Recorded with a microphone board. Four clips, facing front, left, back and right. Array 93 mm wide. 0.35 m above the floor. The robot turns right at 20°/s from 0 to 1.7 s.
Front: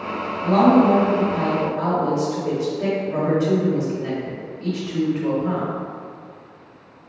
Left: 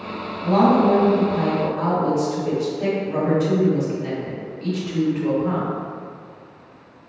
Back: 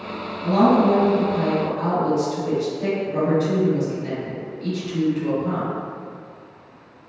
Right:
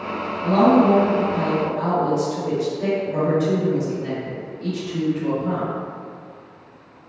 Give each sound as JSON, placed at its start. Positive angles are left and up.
{"t": 0.4, "sound": "a woman speaking", "azimuth_deg": 10, "distance_m": 1.8}